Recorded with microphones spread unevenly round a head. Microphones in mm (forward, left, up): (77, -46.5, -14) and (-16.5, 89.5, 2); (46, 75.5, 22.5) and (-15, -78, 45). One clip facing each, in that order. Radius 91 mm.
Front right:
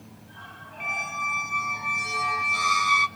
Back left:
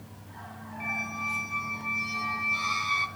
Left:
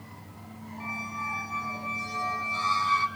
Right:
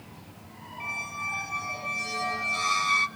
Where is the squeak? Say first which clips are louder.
Front right 3 dB, left 2 dB; 65° right, 0.8 m.